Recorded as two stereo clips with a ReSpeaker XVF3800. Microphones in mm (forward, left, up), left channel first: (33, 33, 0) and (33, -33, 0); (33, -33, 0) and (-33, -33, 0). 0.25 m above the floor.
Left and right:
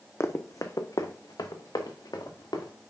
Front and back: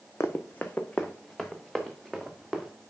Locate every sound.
0.2 s running footsteps: 45° left, 0.8 m; by 2.7 s 90° left, 1.8 m